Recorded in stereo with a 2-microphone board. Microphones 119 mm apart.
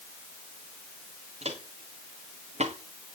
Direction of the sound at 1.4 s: 65° right (ahead or behind).